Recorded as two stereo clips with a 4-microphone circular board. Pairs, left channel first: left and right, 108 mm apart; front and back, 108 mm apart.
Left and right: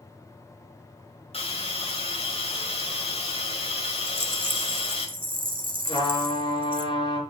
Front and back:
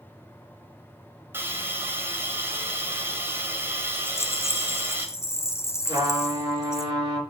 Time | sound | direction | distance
1.3 | a hiss | 110° left | 2.5 m
4.1 | a rattle | 60° right | 1.9 m
5.8 | a trumpet | 125° left | 4.5 m